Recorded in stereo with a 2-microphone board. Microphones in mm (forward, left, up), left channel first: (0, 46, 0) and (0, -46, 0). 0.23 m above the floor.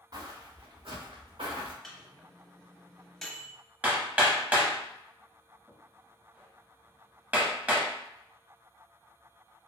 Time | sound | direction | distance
0.1 | footsteps | 45° right (ahead or behind) | 1.8 m
1.8 | a microwave | 5° left (ahead or behind) | 0.8 m
3.8 | hammering | 15° right (ahead or behind) | 0.9 m